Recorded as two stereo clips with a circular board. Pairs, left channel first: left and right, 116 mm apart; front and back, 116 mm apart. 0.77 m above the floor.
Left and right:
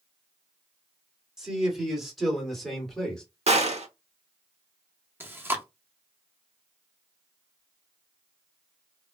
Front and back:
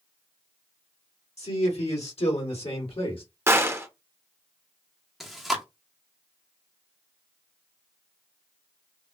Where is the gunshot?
110° right, 0.9 m.